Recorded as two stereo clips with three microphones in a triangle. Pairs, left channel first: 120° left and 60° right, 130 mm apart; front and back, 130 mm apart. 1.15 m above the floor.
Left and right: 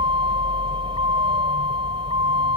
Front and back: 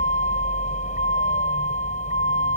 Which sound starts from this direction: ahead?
A vehicle, at 0.0 s.